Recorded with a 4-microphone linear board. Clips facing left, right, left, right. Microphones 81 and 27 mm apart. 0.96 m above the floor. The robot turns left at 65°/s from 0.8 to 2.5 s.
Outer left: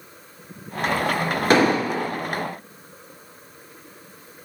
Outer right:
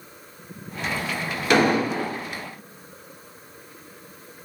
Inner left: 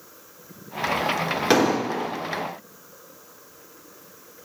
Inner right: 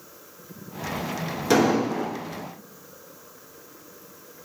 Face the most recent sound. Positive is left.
turn(degrees=75)